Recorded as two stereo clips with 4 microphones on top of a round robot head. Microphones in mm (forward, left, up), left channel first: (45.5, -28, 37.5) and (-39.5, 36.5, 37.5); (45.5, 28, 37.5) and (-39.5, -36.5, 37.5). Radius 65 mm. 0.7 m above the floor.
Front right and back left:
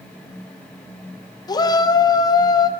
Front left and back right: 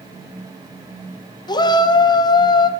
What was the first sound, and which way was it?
A shout, straight ahead.